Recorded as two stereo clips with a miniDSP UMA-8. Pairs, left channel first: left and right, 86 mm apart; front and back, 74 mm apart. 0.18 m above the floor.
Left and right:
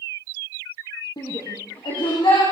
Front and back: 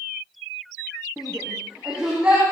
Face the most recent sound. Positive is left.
turn(degrees=105)